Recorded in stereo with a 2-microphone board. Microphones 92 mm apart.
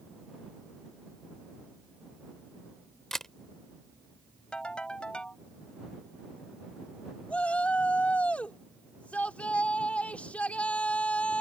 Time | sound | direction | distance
3.1 | a camera shutter | 5° left (ahead or behind) | ?
4.5 | a ringtone | 10° left (ahead or behind) | ?
7.3 | a shout | 15° left (ahead or behind) | ?